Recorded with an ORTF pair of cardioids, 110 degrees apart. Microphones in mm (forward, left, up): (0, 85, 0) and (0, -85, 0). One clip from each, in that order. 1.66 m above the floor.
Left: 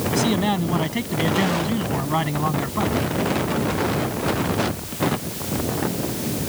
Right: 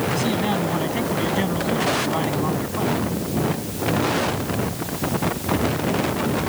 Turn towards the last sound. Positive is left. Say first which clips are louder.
# left 1 dB
turn(degrees=25)